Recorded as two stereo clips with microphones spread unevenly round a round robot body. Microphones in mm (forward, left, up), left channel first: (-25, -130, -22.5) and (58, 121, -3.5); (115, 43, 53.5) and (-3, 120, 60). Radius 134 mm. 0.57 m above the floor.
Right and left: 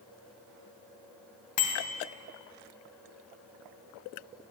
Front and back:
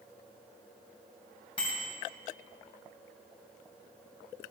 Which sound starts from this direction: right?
A bicycle bell, at 1.6 s.